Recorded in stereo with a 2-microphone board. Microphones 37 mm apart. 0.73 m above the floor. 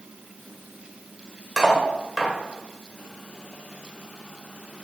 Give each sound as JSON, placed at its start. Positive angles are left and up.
{"t": 1.6, "sound": "cutlery clinking", "side_deg": -5, "distance_m": 1.5}